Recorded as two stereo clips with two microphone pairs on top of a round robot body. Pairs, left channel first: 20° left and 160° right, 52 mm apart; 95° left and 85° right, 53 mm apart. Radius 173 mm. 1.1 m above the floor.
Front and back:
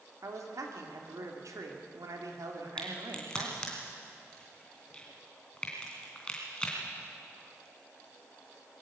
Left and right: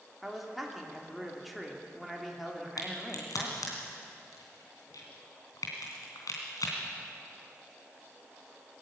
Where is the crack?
90° left, 3 m.